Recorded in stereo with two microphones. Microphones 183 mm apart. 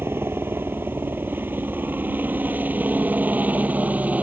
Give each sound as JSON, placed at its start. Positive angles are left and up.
{"t": 0.0, "sound": "a helicopter", "side_deg": -10}